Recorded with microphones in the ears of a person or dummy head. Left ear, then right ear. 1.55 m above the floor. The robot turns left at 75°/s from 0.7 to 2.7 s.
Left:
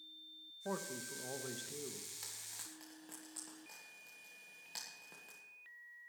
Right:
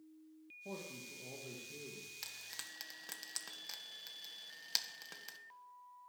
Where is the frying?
10° right (ahead or behind), 1.5 m; by 5.4 s 45° right (ahead or behind), 1.5 m.